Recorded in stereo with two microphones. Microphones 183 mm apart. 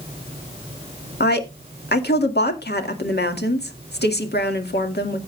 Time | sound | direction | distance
1.2 | a woman speaking | 65° left (ahead or behind) | 1.9 m